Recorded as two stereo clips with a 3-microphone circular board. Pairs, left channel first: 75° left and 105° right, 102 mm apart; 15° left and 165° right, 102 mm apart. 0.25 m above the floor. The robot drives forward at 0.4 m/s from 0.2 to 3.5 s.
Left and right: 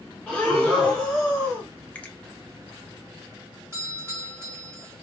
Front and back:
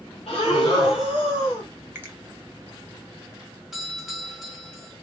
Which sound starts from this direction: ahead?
Breathing, at 0.3 s.